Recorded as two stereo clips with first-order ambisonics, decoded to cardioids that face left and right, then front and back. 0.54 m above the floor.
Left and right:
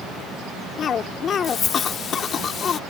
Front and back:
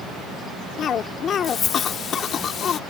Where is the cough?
45° left.